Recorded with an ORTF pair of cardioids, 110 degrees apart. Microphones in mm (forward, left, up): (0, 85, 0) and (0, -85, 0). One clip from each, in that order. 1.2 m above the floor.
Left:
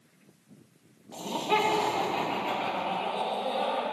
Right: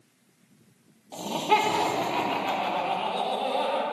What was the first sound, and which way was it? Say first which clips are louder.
Laughter: right 4 dB; 25° right.